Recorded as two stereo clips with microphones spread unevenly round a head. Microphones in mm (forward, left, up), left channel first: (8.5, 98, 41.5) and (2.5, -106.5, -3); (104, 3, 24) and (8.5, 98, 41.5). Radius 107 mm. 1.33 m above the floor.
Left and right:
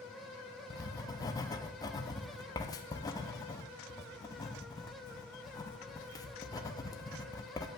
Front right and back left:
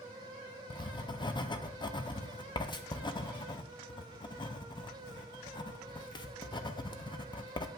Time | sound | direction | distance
0.7 | writing | 15° left | 0.6 m